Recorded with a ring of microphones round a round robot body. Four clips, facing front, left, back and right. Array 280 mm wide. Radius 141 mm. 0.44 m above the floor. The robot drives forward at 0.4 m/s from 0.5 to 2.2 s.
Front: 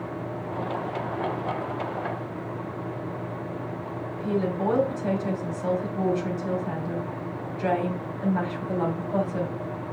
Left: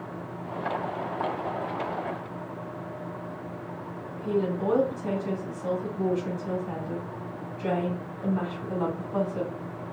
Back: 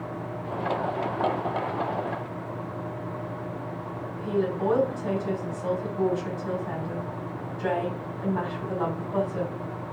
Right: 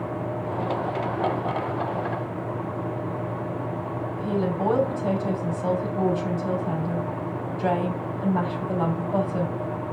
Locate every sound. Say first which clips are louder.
4.2 s a woman speaking: right 1 dB, even; 65° right, 3 m